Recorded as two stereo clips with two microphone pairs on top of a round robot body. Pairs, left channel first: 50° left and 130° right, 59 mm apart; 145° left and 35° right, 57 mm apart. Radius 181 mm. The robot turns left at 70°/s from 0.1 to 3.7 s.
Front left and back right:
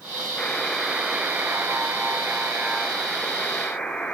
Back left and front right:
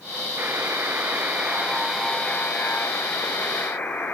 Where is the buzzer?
20° right, 1.0 m; by 4.1 s 110° left, 1.0 m.